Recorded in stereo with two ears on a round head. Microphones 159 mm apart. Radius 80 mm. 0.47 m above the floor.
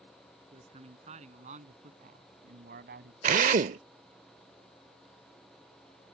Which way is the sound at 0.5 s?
35° right (ahead or behind).